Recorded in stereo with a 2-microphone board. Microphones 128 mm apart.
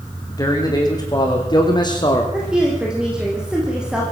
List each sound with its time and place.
0.3 s a man speaking: 30° left (ahead or behind), 5.5 m; by 2.2 s 35° left (ahead or behind), 4.5 m
2.3 s a woman speaking: 5° right (ahead or behind), 5.5 m